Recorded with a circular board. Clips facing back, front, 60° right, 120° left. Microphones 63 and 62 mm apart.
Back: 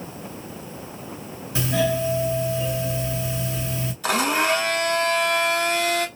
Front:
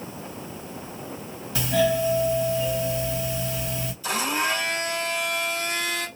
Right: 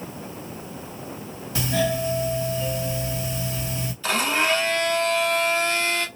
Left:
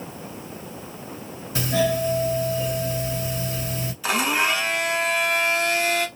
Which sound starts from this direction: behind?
A blender, at 4.0 s.